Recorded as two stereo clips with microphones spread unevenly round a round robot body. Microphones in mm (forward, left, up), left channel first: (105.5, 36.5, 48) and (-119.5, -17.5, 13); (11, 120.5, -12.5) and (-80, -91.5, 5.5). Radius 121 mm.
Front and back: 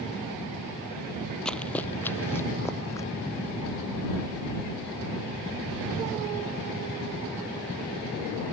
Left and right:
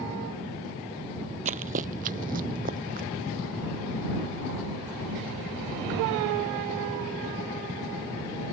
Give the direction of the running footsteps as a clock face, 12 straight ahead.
2 o'clock.